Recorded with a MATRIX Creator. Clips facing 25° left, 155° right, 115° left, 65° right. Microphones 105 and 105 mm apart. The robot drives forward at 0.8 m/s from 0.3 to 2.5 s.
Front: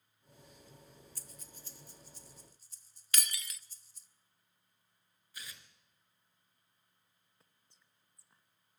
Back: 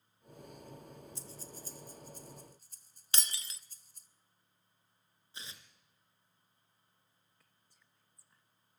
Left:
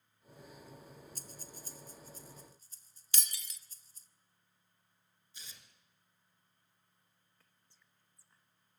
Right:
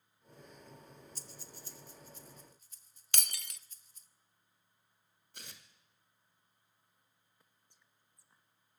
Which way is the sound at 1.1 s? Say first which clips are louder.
Back 8 dB, left 1 dB; 140° left.